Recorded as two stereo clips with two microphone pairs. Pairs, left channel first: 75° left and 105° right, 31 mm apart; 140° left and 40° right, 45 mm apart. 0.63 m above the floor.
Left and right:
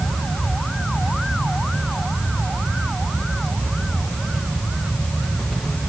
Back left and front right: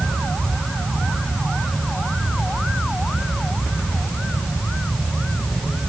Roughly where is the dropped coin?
No dropped coin in this recording.